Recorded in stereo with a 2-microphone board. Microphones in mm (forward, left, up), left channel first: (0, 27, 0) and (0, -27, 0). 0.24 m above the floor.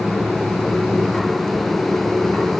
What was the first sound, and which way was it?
Only background noise.